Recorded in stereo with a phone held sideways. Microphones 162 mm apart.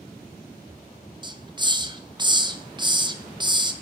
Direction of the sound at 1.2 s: 30° right (ahead or behind).